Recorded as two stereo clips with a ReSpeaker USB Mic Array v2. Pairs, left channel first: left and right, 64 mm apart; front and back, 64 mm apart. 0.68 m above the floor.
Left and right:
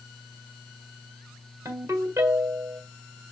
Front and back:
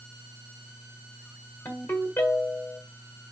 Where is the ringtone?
50° right, 1.7 m.